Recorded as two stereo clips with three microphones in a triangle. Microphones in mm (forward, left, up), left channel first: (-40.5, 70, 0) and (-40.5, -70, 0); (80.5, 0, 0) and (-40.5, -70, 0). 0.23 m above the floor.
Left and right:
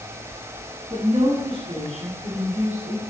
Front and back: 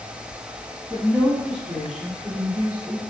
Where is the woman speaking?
35° right, 1.9 m; by 3.0 s 95° right, 2 m.